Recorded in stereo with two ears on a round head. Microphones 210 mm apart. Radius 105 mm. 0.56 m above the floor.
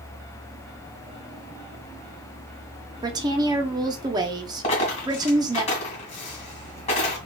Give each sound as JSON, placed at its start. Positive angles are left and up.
{"t": 3.0, "sound": "a woman speaking", "side_deg": -20, "distance_m": 0.7}
{"t": 4.6, "sound": "a dropped coin", "side_deg": 30, "distance_m": 1.8}